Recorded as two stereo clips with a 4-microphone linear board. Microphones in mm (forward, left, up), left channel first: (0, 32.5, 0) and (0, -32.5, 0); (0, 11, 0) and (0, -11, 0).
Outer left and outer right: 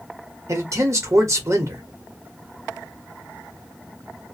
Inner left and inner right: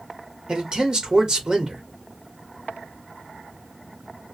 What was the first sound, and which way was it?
A man speaking, 50° right (ahead or behind).